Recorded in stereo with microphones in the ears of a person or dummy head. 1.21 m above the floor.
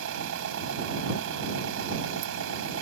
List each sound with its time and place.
0.0 s an engine running: 75° right (ahead or behind)